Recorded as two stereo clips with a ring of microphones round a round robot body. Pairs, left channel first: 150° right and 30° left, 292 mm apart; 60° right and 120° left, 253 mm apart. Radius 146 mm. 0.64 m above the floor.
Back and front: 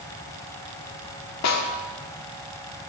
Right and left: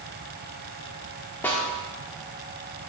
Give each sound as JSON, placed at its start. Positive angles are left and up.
{"t": 1.4, "sound": "a snare drum", "azimuth_deg": -140, "distance_m": 1.8}